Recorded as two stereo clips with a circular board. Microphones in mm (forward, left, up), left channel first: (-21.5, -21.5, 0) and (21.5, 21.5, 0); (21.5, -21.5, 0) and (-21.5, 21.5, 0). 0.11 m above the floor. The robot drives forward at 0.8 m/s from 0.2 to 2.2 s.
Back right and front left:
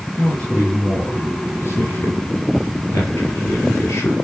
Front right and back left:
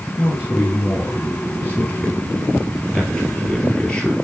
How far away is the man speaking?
About 2 m.